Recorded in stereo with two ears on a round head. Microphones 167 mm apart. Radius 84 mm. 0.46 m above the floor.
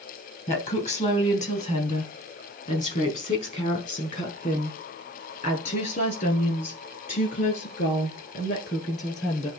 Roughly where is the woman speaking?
Left.